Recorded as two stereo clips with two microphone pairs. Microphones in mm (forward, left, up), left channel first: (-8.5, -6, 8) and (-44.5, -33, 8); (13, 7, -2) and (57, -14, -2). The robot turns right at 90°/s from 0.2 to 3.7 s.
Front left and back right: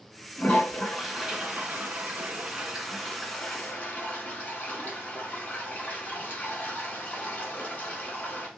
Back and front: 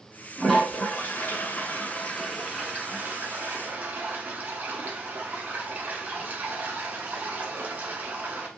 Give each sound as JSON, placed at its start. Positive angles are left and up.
{"t": 0.4, "sound": "a toilet flushing", "azimuth_deg": 70, "distance_m": 0.9}